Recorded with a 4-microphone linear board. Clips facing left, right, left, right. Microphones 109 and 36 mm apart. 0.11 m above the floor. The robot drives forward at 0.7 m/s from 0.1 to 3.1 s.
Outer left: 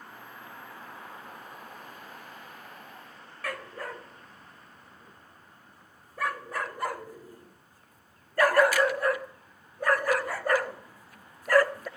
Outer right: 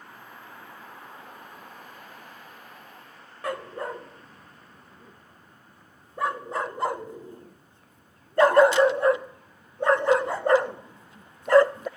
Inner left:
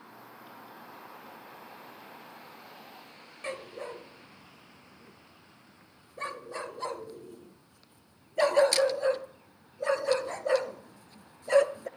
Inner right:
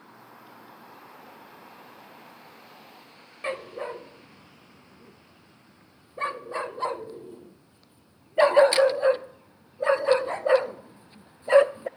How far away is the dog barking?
About 0.6 m.